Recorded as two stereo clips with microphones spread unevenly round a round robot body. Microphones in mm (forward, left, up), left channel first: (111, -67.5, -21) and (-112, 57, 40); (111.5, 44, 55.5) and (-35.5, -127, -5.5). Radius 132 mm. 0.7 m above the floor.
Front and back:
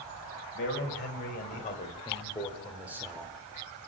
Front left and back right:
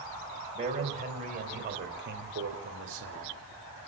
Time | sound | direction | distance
0.6 | a man speaking | 70° right | 4.5 m